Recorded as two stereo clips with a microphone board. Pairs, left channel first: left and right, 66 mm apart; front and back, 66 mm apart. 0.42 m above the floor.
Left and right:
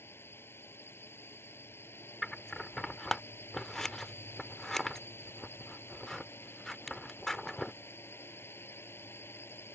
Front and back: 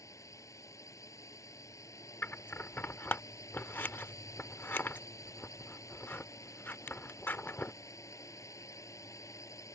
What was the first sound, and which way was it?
A drone, 35° left.